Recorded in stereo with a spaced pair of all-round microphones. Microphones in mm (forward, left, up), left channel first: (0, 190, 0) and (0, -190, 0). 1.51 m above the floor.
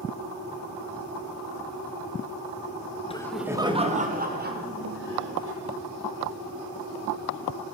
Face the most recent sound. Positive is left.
turn(degrees=-30)  # may be behind; listen again after turning